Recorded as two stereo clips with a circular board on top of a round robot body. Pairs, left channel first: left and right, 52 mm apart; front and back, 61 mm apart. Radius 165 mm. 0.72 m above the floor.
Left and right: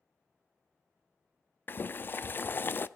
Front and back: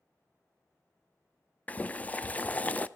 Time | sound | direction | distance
1.7 | boiling | 55° left | 0.5 m